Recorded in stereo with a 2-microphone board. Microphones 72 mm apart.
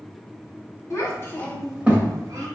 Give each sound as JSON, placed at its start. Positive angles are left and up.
{"t": 0.9, "sound": "a child speaking", "side_deg": 45, "distance_m": 1.0}